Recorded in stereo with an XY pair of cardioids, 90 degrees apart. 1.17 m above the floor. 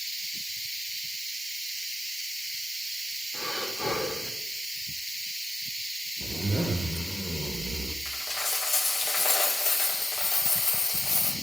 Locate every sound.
3.3 s breathing: 30° left, 1.6 m
6.2 s a zipper: 20° right, 0.9 m
8.1 s a dropped coin: 60° left, 1.6 m